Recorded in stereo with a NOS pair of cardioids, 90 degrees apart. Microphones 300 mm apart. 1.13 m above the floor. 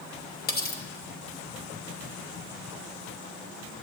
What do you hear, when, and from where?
0.5 s cutlery clinking: 30° left, 1.1 m